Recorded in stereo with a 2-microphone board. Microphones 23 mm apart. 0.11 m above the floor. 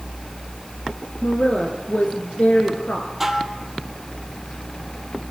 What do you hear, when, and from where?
1.2 s a woman speaking: 70° left (ahead or behind), 4.5 m
3.2 s dishes clattering: 15° right (ahead or behind), 2.5 m